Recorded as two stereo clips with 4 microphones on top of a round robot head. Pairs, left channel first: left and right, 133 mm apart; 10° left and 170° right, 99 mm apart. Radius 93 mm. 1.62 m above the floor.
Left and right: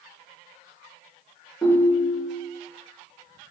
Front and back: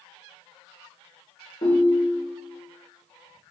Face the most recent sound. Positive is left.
turn(degrees=10)